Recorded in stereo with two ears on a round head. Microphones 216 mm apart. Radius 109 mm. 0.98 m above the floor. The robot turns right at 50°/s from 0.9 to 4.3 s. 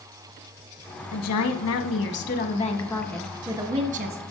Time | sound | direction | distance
1.1 | a woman speaking | 75° left | 1.2 m